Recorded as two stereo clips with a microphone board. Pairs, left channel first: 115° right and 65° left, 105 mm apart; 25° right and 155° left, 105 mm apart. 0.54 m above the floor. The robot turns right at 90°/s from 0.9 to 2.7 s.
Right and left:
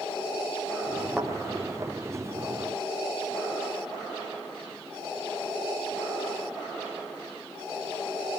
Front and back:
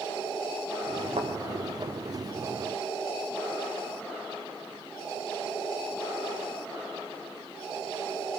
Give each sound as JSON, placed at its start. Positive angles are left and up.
{"t": 1.2, "sound": "a thud", "azimuth_deg": 150, "distance_m": 3.0}